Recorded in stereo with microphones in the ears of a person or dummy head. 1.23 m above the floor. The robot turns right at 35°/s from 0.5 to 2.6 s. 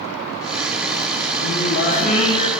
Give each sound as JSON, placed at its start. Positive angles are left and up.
{"t": 1.4, "sound": "singing", "azimuth_deg": 115, "distance_m": 0.5}